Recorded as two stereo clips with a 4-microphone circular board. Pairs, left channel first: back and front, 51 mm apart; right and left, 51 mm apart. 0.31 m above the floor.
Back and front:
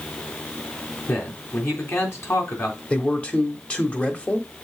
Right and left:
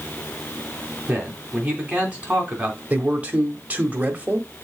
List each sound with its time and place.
1.1 s a man speaking: 160° left, 3 m
2.9 s a man speaking: 130° left, 1.2 m